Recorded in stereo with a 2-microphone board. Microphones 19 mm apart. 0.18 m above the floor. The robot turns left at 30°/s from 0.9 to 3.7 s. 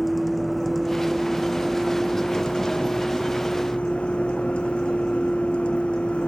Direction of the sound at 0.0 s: 165° left.